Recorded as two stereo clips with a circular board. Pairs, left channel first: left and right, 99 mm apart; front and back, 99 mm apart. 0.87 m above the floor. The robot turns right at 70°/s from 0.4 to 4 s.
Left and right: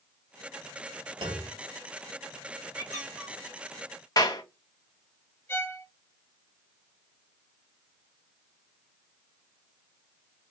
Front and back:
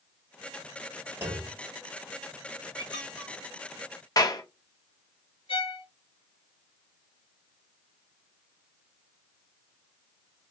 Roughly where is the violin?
Ahead left.